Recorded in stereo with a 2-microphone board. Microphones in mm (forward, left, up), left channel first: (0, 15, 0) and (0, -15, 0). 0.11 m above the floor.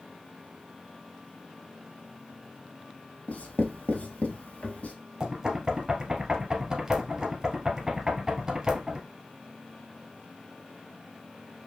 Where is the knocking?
25° right (ahead or behind), 1.3 m.